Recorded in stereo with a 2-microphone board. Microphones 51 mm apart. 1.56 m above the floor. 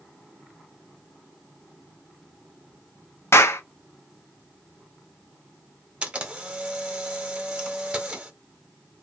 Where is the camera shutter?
20° right (ahead or behind), 0.8 m.